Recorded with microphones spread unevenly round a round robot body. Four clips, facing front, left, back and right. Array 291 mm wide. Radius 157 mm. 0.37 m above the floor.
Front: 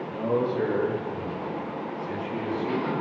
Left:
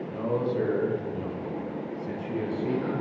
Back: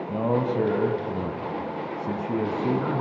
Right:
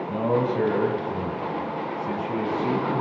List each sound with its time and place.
0.1 s a man speaking: 140° right, 3.5 m; by 3.0 s 170° right, 4.5 m